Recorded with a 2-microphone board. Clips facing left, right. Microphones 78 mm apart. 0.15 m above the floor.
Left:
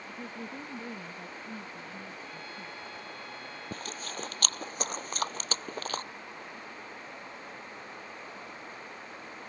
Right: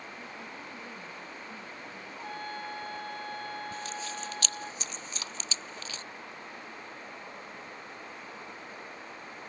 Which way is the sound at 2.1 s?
50° right (ahead or behind).